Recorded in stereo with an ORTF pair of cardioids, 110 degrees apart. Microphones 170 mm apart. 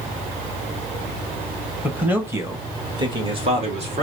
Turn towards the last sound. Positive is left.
turn(degrees=-40)